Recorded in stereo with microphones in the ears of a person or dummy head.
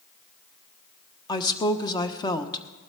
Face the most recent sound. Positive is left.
turn(degrees=20)  # may be behind; listen again after turning